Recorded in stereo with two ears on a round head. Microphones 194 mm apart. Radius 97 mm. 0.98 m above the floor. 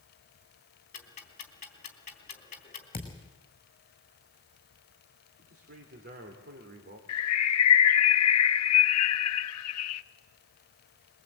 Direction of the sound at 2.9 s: 25° left (ahead or behind).